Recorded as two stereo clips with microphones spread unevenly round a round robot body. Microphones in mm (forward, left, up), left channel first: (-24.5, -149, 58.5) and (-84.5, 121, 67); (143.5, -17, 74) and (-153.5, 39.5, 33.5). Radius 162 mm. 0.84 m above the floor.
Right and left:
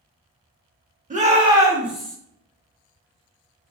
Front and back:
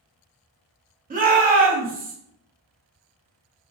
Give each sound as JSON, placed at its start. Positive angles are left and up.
{"t": 1.1, "sound": "a shout", "azimuth_deg": 145, "distance_m": 1.0}